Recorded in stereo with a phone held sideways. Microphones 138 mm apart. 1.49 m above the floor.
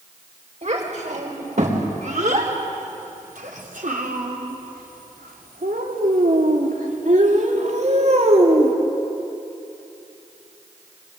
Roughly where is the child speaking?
Right.